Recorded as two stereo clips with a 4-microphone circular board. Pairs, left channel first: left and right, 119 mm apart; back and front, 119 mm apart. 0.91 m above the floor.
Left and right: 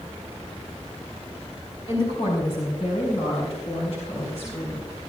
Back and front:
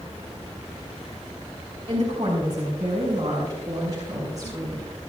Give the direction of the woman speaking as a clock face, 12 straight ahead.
10 o'clock.